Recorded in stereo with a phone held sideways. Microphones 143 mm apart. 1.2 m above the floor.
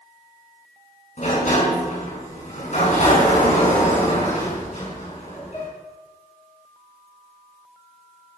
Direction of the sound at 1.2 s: 55° left (ahead or behind).